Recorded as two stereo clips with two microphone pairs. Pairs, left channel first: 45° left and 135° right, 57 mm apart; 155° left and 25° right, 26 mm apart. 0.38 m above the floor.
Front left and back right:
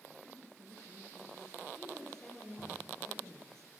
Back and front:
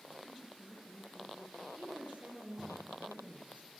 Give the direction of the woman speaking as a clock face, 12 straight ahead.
1 o'clock.